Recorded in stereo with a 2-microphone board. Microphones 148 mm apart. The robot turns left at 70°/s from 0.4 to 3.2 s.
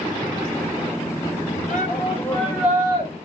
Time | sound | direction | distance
1.7 | a shout | 60° left | 4.5 m